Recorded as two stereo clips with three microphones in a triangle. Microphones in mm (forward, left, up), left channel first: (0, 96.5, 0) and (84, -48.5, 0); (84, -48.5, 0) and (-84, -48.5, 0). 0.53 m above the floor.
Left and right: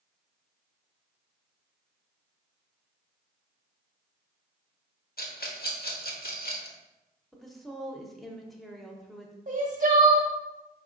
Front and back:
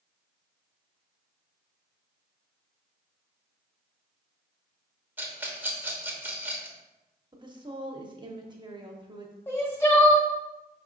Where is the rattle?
105° left, 0.9 m.